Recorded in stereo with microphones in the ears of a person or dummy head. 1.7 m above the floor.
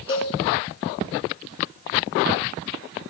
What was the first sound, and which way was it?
A cowbell, 20° left (ahead or behind).